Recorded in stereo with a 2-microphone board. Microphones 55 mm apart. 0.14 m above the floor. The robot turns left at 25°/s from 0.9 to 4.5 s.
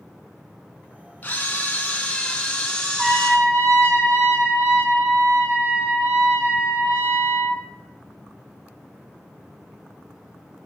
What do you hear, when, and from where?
1.2 s a camera shutter: 80° left, 0.5 m; by 3.4 s 25° left, 0.5 m
3.0 s a trumpet: 100° right, 1.1 m; by 7.6 s 140° right, 1.1 m